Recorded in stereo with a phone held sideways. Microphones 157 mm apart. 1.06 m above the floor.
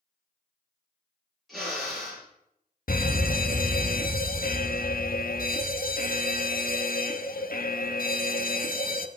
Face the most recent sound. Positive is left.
turn(degrees=75)  # may be behind; listen again after turning